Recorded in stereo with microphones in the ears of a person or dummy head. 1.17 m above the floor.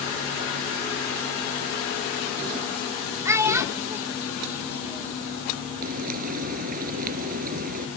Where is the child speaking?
15° right (ahead or behind); by 5.2 s 10° right (ahead or behind).